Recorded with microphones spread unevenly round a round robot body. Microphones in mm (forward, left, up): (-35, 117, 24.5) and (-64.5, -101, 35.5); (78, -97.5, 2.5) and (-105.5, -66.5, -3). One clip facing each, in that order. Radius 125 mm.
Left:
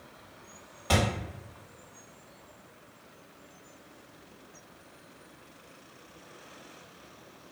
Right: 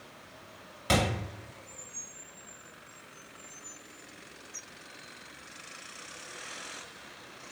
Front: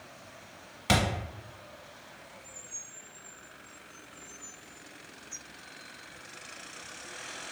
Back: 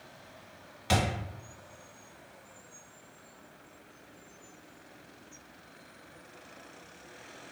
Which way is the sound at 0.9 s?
35° right.